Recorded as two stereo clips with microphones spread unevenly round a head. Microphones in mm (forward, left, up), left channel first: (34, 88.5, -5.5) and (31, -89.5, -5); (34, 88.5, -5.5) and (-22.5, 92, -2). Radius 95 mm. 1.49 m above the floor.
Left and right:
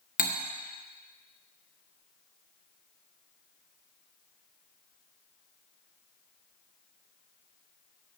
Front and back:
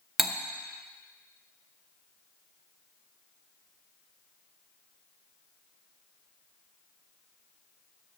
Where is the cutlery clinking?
90° left, 0.9 m.